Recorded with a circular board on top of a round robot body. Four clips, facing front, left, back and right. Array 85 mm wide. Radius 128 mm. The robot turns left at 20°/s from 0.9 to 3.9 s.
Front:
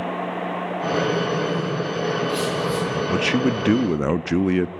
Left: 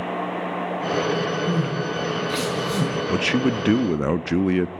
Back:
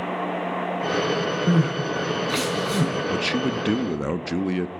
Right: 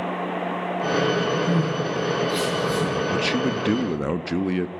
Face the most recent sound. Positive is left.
turn(degrees=35)